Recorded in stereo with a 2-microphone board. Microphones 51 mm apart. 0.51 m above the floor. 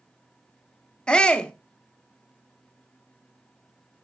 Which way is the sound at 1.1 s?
15° left (ahead or behind).